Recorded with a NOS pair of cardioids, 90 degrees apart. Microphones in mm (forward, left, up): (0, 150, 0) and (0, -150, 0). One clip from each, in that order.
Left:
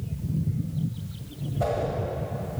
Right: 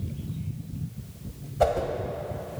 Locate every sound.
1.6 s a whoosh: 50° right, 1.5 m